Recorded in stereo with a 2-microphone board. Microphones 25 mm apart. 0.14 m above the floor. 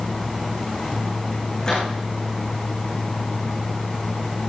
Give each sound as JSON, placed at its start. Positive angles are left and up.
{"t": 1.6, "sound": "a microwave", "side_deg": 35, "distance_m": 8.5}